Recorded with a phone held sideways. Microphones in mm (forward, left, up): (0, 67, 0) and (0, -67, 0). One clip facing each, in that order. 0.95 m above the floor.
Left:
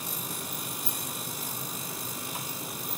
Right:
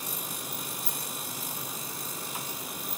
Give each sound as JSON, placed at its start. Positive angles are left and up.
{"t": 0.8, "sound": "a rattle", "side_deg": 20}